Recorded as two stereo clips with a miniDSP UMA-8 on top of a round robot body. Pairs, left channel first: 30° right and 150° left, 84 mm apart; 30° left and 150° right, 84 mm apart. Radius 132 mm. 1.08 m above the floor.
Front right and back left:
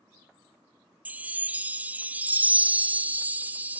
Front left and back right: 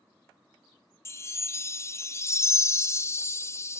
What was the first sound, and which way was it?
A chime, 80° left.